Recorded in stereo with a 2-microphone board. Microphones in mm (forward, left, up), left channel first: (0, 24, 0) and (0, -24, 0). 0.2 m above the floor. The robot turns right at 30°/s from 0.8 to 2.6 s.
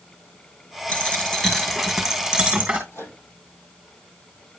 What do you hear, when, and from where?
0.9 s a dropped coin: 150° left, 2.0 m; by 2.8 s 160° right, 2.0 m
2.9 s a microwave: 65° left (ahead or behind), 4.5 m